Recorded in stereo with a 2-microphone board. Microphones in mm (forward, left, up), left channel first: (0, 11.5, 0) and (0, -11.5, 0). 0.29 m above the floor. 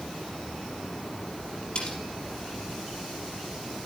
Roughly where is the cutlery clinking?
Left.